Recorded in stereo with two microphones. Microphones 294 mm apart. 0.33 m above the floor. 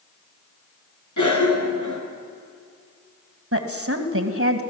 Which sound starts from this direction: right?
A woman speaking, at 3.5 s.